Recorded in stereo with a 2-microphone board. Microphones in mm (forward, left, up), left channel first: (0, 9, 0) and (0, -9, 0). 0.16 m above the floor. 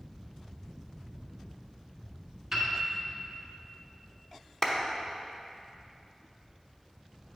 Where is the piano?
15° right (ahead or behind), 1.5 m.